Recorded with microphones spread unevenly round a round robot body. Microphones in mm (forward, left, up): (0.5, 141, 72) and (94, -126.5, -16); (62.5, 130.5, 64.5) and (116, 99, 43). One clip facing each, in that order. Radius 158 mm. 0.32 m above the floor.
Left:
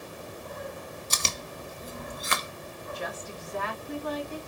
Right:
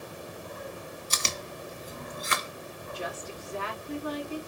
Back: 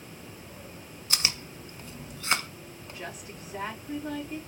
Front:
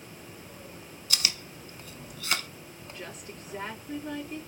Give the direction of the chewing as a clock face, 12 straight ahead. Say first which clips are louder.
Right 2 dB, back 1 dB; 9 o'clock.